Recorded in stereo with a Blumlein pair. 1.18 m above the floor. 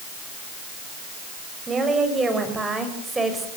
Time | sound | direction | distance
1.7 | a woman speaking | 15° right | 6.5 m